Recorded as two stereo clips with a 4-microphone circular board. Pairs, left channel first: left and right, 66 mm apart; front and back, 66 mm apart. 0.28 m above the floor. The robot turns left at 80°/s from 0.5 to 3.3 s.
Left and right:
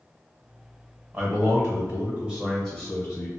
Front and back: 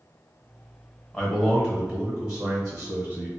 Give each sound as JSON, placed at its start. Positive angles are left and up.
{"t": 1.1, "sound": "a man speaking", "azimuth_deg": -45, "distance_m": 1.0}